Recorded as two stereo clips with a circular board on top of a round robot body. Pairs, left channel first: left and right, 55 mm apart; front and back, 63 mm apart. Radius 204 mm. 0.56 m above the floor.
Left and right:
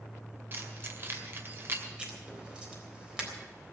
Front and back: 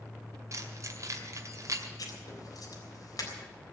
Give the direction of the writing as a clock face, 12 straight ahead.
1 o'clock.